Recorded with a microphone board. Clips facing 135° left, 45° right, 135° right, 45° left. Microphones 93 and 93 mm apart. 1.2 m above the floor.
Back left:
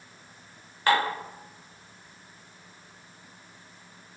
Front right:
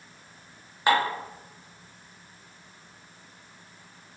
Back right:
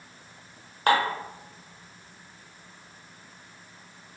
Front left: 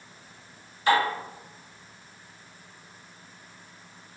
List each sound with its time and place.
0.9 s dishes clattering: 115° right, 1.0 m